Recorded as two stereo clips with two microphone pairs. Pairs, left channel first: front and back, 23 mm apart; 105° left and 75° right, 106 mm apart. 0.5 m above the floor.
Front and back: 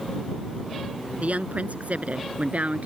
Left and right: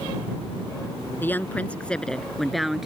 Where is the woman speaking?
175° left; by 2.9 s 160° right.